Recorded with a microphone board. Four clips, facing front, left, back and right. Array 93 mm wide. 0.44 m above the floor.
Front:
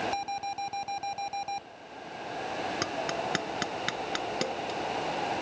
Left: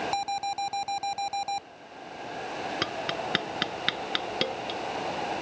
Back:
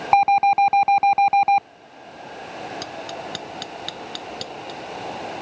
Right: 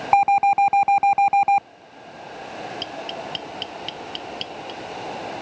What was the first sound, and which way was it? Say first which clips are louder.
An alarm: right 14 dB, back 18 dB; 140° right.